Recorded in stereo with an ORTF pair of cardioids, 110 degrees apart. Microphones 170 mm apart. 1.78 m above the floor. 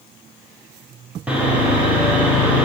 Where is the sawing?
10° right, 1.1 m.